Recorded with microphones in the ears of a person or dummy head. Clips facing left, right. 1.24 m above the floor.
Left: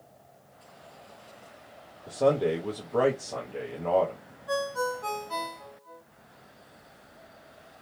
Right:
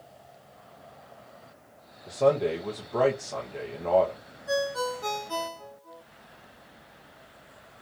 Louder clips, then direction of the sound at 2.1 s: Right 1 dB; 5° left (ahead or behind).